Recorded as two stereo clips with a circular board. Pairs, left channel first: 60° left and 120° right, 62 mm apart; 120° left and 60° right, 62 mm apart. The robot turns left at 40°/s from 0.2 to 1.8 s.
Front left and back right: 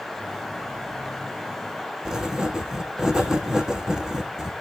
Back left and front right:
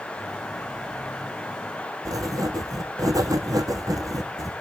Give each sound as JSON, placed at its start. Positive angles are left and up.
{"t": 2.0, "sound": "writing", "azimuth_deg": -40, "distance_m": 1.0}